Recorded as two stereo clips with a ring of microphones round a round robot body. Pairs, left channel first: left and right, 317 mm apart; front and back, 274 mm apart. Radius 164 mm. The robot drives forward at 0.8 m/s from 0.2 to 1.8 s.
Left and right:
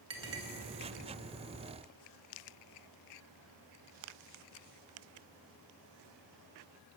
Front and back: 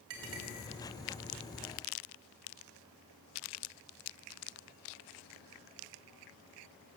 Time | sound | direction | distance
0.1 | a clink | 135° right | 2.0 m